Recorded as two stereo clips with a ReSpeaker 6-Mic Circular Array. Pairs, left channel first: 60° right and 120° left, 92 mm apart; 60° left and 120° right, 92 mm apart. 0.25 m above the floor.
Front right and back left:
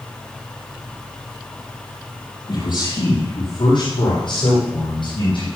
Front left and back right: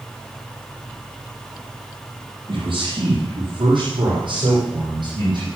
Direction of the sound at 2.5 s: 80° right.